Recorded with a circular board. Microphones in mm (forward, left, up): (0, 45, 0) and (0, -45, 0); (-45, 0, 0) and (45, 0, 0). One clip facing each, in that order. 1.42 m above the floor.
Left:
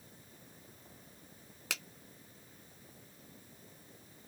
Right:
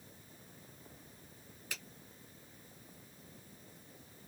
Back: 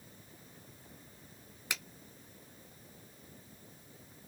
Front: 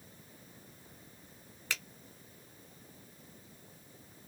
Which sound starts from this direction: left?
A finger snap, at 1.7 s.